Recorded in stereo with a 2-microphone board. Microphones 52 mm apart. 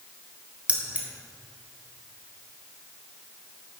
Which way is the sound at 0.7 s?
25° right (ahead or behind).